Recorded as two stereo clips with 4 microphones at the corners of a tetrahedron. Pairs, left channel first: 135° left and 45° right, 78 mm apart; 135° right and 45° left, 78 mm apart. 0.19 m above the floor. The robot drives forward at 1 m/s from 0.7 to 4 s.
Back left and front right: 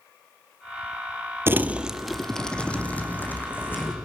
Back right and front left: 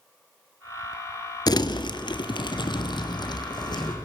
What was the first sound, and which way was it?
Crumpling, 105° right.